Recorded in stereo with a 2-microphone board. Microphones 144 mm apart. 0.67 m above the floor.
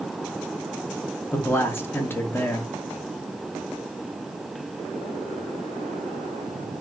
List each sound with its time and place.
1.3 s a man speaking: 15° left (ahead or behind), 0.5 m